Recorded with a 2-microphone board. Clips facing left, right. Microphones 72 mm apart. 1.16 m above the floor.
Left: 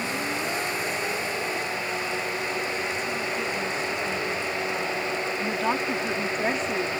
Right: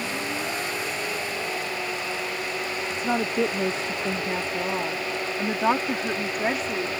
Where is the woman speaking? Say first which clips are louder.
Right 3 dB; 75° right (ahead or behind); by 6.9 s centre (ahead or behind).